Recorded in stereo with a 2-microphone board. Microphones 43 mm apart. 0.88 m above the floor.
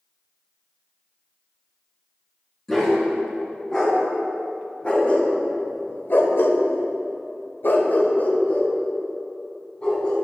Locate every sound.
2.7 s a dog barking: 10° left (ahead or behind), 4 m; by 10.2 s 25° left (ahead or behind), 3.5 m